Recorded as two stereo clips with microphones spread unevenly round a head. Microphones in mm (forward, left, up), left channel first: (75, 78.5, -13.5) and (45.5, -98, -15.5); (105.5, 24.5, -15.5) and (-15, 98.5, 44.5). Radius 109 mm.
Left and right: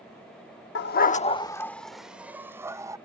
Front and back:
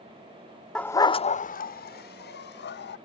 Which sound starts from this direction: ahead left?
A dog barking, at 0.8 s.